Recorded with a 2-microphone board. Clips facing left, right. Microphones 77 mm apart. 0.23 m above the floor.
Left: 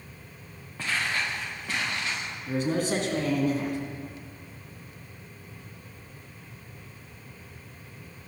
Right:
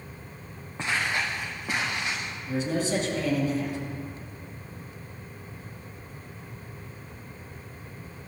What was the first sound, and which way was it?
Footsteps, 20° right (ahead or behind).